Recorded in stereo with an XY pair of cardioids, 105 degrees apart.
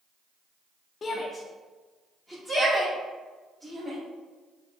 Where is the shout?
45° left, 0.5 m; by 4.0 s 25° right, 2.5 m.